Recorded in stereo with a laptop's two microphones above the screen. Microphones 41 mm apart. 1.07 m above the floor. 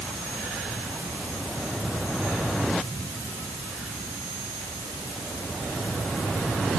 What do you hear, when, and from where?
Only background noise.